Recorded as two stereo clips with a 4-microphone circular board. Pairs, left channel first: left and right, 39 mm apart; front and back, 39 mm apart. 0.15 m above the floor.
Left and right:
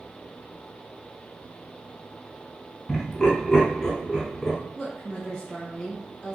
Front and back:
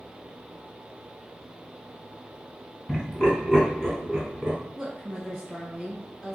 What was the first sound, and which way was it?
Laughter, 15° left.